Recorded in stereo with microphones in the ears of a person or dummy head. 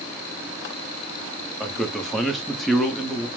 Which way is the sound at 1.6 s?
Centre (ahead or behind).